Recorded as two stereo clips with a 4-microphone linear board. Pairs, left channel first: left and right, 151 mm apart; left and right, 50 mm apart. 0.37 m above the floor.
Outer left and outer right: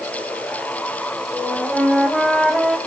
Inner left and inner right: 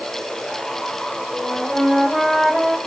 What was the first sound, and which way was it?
A flute, centre (ahead or behind).